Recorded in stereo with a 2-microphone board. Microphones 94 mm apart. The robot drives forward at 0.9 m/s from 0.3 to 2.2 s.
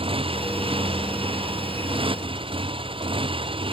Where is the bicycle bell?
I don't hear a bicycle bell.